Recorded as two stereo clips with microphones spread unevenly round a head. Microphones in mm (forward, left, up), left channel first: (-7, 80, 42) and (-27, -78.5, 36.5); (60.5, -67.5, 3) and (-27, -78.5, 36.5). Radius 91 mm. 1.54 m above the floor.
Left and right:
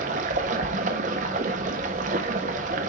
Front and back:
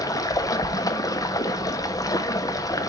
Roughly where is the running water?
Ahead right.